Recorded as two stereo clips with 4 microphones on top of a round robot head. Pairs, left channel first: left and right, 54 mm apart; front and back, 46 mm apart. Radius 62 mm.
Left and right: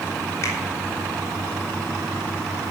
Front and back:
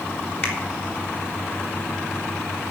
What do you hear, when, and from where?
0.4 s a finger snap: 45° left, 3.5 m